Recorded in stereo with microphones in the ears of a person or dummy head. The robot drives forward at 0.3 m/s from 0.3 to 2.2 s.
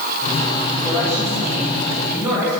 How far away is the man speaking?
About 6.5 m.